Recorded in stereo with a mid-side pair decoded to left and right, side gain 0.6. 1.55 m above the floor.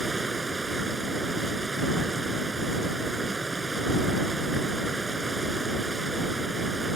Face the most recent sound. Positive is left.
turn(degrees=-15)